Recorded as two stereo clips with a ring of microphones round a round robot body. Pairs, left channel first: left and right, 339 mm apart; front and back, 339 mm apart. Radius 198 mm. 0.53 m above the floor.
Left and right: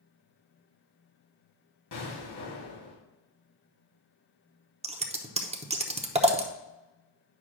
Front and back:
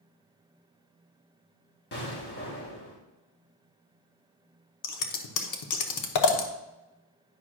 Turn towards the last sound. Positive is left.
turn(degrees=-20)